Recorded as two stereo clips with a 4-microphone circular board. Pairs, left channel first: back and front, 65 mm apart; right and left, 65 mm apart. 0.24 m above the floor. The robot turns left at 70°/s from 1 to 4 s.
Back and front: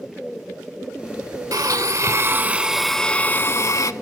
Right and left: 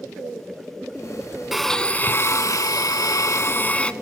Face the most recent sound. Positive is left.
turn(degrees=-170)